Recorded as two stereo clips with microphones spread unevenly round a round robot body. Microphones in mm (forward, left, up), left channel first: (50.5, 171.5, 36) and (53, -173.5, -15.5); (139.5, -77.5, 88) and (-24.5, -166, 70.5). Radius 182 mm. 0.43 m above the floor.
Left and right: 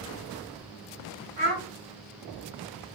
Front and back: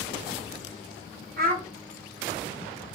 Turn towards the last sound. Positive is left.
turn(degrees=-115)